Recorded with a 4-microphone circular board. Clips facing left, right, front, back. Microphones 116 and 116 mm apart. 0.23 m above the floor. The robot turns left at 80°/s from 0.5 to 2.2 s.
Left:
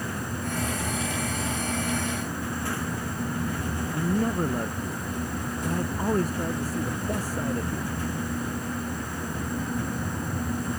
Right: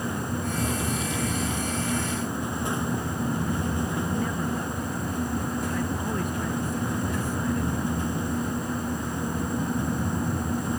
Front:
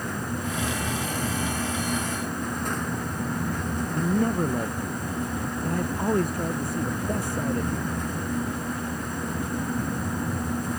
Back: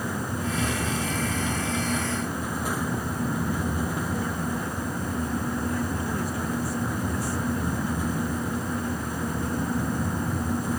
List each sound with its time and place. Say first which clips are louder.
3.9 s a man speaking: left 2 dB, front 5 dB; 40° left